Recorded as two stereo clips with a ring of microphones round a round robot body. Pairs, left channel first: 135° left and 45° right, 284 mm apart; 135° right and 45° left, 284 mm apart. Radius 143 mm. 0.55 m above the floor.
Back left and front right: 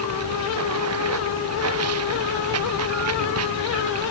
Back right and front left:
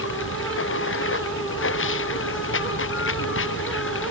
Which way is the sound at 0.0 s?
85° right.